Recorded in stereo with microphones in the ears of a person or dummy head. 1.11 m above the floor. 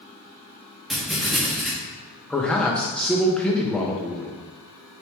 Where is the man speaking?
5° left (ahead or behind), 0.6 m.